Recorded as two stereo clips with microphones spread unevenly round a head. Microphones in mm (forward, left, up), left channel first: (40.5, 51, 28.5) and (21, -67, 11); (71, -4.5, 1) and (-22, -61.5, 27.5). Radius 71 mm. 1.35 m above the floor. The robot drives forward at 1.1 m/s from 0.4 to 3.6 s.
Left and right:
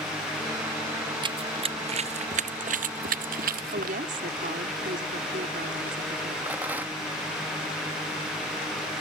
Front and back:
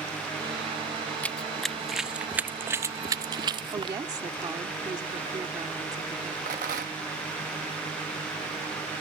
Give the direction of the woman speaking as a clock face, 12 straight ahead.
3 o'clock.